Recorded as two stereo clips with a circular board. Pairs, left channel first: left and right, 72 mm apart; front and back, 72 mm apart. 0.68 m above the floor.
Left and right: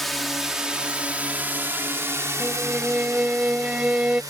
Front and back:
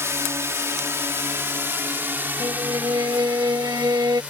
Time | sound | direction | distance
0.0 | a drone | 175° left | ?
2.4 | a violin | 165° right | ?